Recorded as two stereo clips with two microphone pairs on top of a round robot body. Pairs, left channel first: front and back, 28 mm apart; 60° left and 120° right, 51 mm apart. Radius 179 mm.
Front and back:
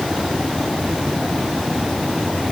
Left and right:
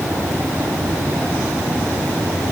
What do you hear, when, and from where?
Only background noise.